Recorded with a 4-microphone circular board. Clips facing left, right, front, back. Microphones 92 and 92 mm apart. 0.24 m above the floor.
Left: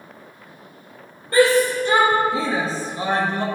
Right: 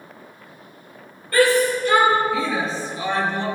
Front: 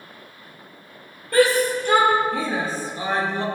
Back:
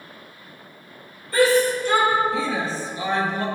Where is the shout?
25° left, 5.5 m; by 3.5 s 60° left, 3 m.